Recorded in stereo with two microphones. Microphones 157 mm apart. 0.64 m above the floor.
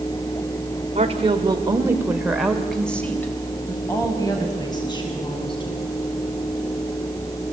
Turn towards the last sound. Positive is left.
turn(degrees=35)  # may be behind; listen again after turning